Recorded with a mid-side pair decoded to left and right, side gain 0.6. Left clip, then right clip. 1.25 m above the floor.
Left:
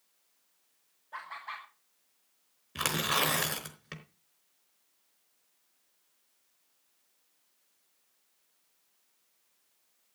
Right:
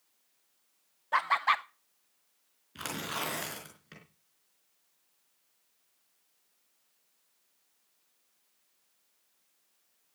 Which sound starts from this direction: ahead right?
Laughter, at 1.1 s.